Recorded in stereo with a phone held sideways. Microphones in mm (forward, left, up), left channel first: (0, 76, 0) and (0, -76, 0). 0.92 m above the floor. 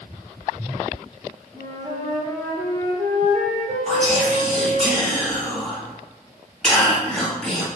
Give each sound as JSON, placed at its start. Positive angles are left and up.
{"t": 1.5, "sound": "a flute", "side_deg": -50, "distance_m": 0.7}
{"t": 3.9, "sound": "whispering", "side_deg": 5, "distance_m": 0.9}